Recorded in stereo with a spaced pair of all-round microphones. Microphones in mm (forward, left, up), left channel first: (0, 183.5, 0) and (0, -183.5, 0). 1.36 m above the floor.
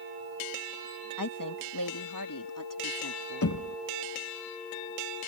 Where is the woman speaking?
60° left (ahead or behind).